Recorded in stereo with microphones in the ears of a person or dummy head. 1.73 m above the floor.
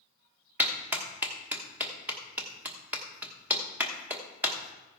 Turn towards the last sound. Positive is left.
turn(degrees=-10)  # may be behind; listen again after turning